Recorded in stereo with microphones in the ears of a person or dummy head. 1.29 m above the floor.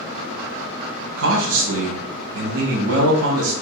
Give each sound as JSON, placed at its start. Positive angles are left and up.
{"t": 1.2, "sound": "a man speaking", "side_deg": -75, "distance_m": 0.9}